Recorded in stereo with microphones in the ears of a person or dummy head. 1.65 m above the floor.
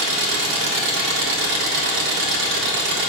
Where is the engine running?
65° right (ahead or behind), 1.6 m.